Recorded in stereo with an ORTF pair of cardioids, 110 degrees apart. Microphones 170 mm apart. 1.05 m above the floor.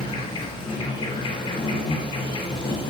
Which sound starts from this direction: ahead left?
An insect, at 0.0 s.